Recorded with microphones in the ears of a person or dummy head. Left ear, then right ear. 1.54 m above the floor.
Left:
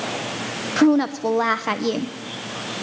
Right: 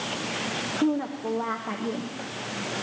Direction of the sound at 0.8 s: 80° left.